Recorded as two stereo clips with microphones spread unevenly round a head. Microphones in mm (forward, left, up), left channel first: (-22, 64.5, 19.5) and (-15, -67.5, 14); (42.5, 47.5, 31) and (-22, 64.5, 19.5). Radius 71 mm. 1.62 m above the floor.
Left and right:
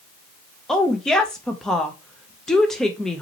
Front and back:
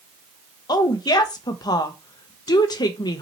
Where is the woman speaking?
5° left, 0.8 m.